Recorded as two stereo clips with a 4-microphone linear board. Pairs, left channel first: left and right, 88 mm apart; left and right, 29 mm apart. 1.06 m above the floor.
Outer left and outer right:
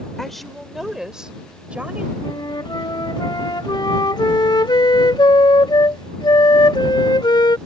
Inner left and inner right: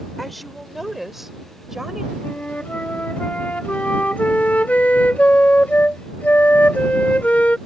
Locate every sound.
0.2 s a woman speaking: 5° left (ahead or behind); by 2.1 s 15° right (ahead or behind)
2.2 s a flute: 60° left (ahead or behind)